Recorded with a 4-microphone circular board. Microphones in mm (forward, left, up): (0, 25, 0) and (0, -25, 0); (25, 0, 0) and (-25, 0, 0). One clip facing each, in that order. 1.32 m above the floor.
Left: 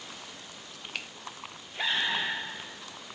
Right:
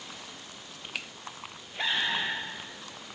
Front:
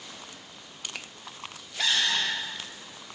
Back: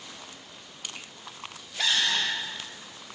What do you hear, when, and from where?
0.9 s a finger snap: straight ahead, 0.8 m